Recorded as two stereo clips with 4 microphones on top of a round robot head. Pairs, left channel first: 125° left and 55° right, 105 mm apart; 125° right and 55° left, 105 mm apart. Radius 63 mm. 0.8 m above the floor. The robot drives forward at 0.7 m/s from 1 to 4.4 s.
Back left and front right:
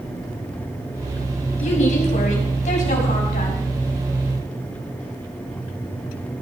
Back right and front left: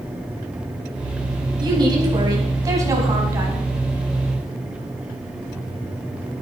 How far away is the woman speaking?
About 4.5 m.